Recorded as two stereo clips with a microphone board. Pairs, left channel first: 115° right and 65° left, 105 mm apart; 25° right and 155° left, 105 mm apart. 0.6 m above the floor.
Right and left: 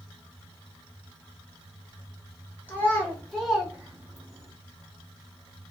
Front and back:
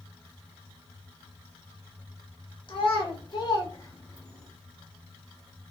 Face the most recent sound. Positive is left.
turn(degrees=65)